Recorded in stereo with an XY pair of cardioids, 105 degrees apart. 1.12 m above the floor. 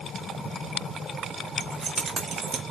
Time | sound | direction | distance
1.6 | keys jangling | 40° right | 1.5 m